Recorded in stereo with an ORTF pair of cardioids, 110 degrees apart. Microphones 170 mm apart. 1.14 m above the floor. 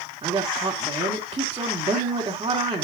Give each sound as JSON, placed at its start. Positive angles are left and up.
{"t": 0.2, "sound": "a woman speaking", "azimuth_deg": -25, "distance_m": 2.5}